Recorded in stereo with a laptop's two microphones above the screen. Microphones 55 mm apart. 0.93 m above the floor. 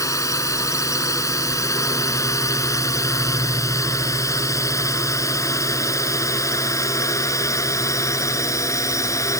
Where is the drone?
75° left (ahead or behind); by 9.4 s 70° left (ahead or behind).